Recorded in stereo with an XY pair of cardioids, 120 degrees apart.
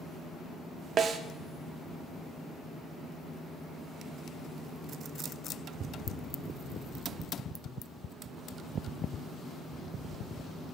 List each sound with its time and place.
1.0 s a snare drum: 50° right, 0.6 m